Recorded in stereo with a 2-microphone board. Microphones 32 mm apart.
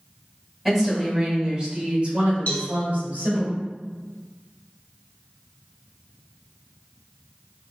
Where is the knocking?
No knocking in this recording.